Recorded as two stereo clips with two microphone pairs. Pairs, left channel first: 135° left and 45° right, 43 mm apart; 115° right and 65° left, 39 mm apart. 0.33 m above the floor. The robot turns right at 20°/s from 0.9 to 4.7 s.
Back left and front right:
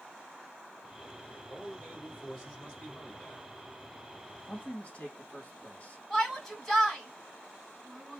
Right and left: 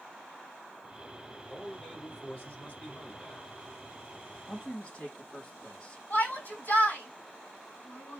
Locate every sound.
1.5 s a man speaking: straight behind, 1.9 m; by 3.5 s 140° right, 1.9 m
4.5 s a man speaking: 170° right, 1.6 m; by 6.0 s 165° right, 1.6 m
6.1 s a shout: 135° right, 1.9 m